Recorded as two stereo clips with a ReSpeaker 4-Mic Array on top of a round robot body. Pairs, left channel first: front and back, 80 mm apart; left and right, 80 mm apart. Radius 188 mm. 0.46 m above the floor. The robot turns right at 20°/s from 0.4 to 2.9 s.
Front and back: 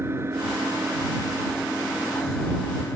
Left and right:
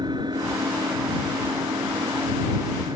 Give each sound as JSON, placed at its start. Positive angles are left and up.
{"t": 0.0, "sound": "an engine running", "azimuth_deg": -120}